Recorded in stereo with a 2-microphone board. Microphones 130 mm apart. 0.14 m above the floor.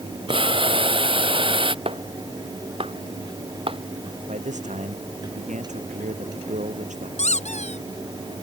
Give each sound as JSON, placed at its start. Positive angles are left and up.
{"t": 0.3, "sound": "boiling", "side_deg": -40}
{"t": 1.9, "sound": "a clap", "side_deg": -45}
{"t": 4.3, "sound": "a man speaking", "side_deg": -70}
{"t": 7.2, "sound": "a squeak", "side_deg": 60}